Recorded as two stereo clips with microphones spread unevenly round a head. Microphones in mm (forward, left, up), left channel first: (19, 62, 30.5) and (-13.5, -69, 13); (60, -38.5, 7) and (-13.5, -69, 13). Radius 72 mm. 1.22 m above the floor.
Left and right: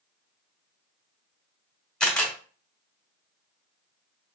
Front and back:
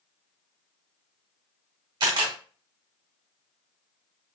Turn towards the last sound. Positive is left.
turn(degrees=160)